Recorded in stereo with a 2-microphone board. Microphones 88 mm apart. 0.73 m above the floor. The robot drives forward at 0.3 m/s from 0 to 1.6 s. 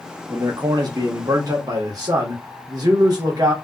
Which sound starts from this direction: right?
A man speaking, at 0.3 s.